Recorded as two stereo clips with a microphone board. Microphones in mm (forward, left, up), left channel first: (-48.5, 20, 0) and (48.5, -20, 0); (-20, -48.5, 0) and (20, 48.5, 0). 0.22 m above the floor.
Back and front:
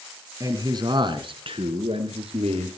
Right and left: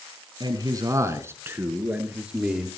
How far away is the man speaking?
About 2 m.